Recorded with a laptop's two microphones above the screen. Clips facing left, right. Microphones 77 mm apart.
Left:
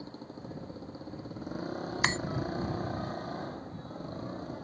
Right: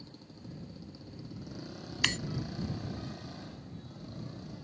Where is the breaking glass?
35° left (ahead or behind).